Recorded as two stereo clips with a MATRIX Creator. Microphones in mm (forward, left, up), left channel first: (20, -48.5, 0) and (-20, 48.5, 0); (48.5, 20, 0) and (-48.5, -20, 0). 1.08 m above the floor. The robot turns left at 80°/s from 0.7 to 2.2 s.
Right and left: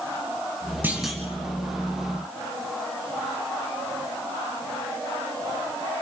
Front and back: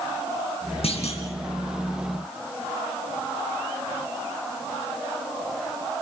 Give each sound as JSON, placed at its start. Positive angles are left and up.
{"t": 0.8, "sound": "a clunk", "azimuth_deg": 40, "distance_m": 4.5}